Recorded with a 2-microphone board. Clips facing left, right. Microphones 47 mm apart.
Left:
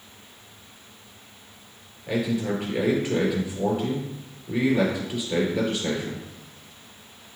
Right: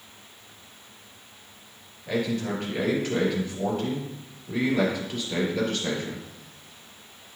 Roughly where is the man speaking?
Centre.